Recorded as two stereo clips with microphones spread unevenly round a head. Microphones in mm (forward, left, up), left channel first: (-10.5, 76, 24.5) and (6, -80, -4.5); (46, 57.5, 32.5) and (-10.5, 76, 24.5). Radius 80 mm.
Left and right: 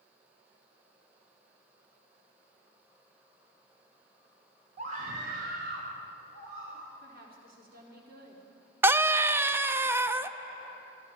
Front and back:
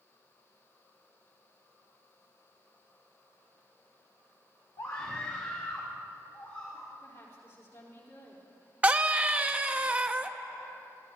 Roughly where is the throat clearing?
I don't hear throat clearing.